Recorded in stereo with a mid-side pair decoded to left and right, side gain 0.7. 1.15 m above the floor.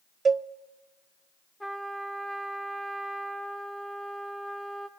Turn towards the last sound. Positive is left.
turn(degrees=0)